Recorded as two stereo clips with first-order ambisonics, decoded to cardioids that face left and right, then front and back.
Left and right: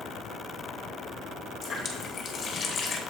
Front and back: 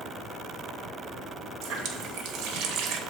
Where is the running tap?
155° left, 1.0 m.